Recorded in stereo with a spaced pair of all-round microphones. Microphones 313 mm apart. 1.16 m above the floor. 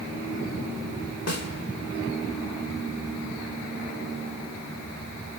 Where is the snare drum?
55° left (ahead or behind), 1.5 m.